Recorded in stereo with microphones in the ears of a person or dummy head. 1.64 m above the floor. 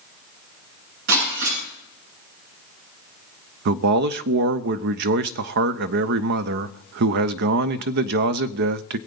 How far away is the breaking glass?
About 8 m.